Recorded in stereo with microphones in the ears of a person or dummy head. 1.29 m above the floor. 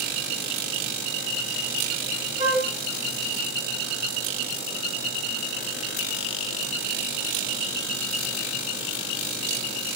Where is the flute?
35° right (ahead or behind), 0.8 m.